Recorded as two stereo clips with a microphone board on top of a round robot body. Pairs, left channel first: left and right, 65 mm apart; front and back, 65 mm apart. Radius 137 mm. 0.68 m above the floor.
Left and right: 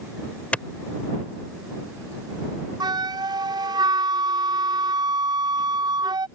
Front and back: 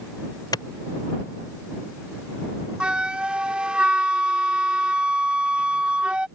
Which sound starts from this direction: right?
A flute, at 2.8 s.